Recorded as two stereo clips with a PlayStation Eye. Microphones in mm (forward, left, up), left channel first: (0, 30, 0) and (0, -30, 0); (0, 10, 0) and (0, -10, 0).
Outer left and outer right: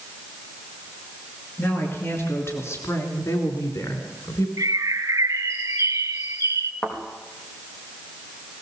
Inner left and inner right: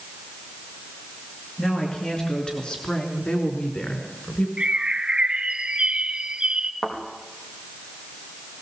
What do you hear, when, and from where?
1.6 s a woman speaking: 35° left (ahead or behind), 4 m; by 4.5 s 75° left (ahead or behind), 3.5 m
4.6 s a bird: 75° right (ahead or behind), 1.1 m
6.8 s a thud: 25° left (ahead or behind), 5 m